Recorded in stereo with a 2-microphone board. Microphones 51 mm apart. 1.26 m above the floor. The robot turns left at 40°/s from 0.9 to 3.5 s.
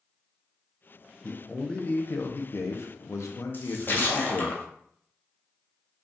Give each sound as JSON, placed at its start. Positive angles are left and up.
{"t": 1.2, "sound": "a man speaking", "azimuth_deg": 170, "distance_m": 0.6}
{"t": 3.5, "sound": "a splash", "side_deg": 40, "distance_m": 0.6}